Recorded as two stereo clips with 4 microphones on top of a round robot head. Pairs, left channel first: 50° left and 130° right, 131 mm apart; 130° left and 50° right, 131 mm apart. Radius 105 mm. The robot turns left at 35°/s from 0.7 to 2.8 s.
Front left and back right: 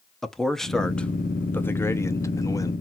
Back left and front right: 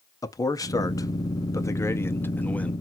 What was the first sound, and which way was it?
A man speaking, 130° left.